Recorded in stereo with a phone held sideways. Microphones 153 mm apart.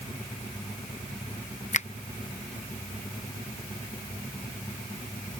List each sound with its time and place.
1.7 s a finger snap: 50° left (ahead or behind)